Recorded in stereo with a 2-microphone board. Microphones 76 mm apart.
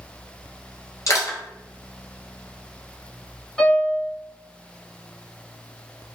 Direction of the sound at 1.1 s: 50° left (ahead or behind).